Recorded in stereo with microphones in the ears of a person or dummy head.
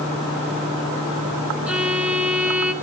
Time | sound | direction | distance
1.7 | a violin | 5° right (ahead or behind) | 2 m